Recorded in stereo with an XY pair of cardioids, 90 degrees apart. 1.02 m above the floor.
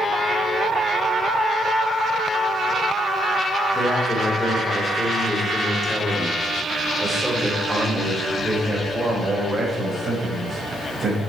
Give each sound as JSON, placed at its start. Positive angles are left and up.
{"t": 3.7, "sound": "a man speaking", "azimuth_deg": 40, "distance_m": 3.5}